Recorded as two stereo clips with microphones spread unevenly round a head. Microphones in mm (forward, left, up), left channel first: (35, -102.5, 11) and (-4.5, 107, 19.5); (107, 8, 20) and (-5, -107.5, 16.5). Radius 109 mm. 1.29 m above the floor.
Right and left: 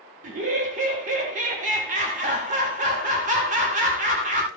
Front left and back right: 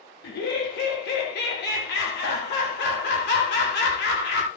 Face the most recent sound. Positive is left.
turn(degrees=45)